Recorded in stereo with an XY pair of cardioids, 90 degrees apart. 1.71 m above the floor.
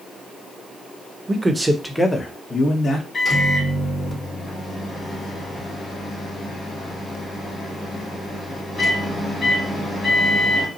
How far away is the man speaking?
About 0.9 m.